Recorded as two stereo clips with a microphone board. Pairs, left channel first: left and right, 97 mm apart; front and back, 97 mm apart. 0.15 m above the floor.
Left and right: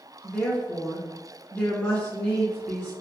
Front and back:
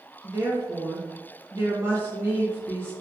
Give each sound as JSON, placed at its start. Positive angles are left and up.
{"t": 0.2, "sound": "a woman speaking", "azimuth_deg": 150, "distance_m": 1.1}